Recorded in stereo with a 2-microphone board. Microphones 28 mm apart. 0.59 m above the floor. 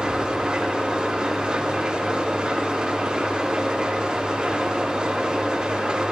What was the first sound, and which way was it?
An engine running, 45° right (ahead or behind).